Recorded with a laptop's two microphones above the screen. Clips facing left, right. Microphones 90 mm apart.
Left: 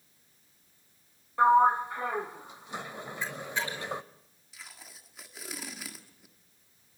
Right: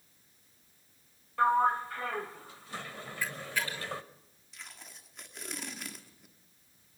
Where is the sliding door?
20° left (ahead or behind), 0.8 m.